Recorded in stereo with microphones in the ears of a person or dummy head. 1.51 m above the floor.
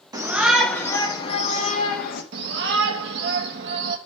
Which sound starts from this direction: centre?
A shout, at 0.1 s.